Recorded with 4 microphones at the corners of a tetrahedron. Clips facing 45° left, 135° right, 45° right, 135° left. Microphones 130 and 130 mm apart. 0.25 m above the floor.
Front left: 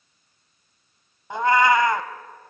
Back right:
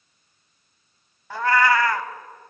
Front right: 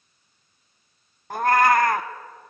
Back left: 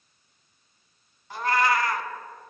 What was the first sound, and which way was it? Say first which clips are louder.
A cat meowing: front left 2 dB, front right 6 dB; 25° right.